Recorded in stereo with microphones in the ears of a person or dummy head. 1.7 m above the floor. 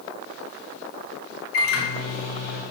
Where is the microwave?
80° left, 1.3 m.